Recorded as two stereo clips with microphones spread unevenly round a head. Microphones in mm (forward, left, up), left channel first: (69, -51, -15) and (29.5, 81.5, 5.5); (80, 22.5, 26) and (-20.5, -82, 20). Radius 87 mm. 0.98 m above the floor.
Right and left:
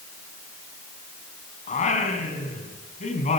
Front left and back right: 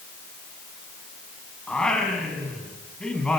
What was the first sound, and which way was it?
Singing, 40° right.